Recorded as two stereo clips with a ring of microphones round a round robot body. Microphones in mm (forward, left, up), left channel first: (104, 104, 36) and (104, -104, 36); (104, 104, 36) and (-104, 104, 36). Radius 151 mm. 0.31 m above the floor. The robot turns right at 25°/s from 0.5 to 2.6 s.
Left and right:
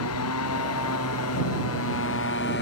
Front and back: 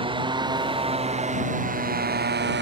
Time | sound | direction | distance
0.0 | a motorcycle | 115° left | ?